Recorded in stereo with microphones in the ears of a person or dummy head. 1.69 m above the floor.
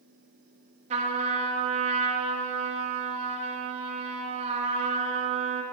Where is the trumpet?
40° right (ahead or behind), 3 m.